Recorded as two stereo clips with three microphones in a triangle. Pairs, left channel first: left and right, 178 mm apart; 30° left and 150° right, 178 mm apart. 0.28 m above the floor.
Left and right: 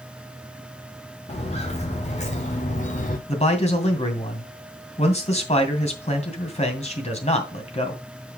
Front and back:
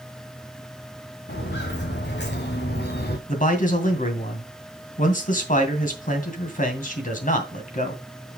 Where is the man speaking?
50° left, 2.5 m.